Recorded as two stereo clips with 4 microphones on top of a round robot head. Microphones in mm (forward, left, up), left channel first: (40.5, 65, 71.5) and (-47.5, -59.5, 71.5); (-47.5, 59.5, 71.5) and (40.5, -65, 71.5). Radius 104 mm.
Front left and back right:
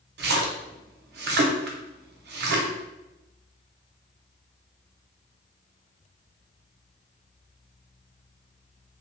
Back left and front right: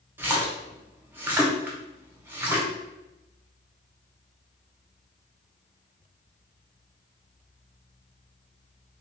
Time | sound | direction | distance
0.2 | a splash | 130° right | 0.7 m